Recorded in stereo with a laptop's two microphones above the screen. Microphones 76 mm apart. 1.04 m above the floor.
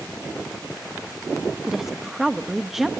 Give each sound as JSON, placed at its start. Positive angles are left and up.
{"t": 1.7, "sound": "a woman speaking", "side_deg": -5, "distance_m": 1.6}